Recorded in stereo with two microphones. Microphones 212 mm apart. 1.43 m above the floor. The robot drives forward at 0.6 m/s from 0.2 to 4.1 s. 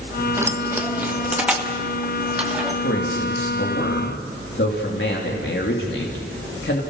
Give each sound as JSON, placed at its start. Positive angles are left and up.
{"t": 0.4, "sound": "keys jangling", "side_deg": -10, "distance_m": 1.1}
{"t": 2.8, "sound": "a man speaking", "side_deg": 70, "distance_m": 2.5}